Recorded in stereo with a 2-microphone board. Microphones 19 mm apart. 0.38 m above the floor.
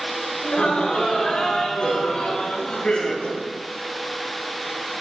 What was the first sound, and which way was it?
Laughter, 70° left (ahead or behind).